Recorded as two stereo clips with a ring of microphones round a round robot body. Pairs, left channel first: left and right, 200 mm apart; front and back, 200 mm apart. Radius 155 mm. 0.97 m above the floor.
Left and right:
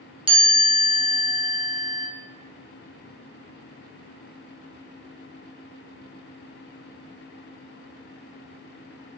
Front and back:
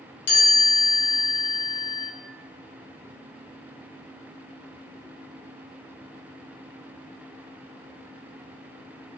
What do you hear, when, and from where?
0.3 s a chime: 25° right, 1.4 m